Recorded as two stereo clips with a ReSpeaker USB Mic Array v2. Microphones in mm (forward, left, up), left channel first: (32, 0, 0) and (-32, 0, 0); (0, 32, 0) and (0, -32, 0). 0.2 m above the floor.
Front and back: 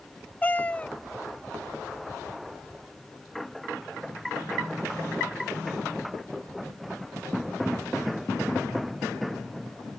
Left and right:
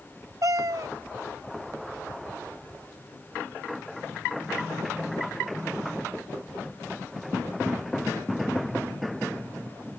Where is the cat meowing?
65° right.